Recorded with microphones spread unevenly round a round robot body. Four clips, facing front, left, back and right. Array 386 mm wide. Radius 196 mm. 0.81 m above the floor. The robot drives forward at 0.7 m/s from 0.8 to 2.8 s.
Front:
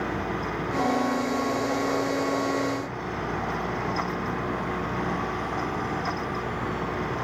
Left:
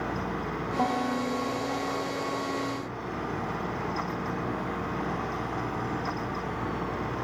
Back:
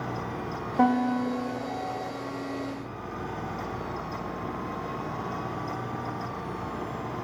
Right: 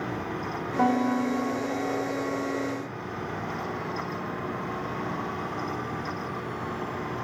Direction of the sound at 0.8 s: 165° right.